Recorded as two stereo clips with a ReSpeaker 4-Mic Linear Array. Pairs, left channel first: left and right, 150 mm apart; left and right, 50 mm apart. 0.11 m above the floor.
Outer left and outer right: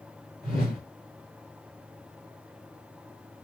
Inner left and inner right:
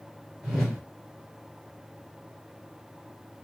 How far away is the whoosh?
About 1.8 m.